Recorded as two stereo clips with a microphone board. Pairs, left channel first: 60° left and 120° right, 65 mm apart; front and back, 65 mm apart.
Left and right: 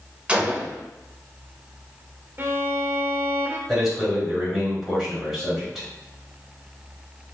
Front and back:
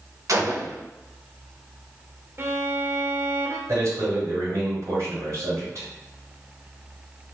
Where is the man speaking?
150° left, 1.9 m.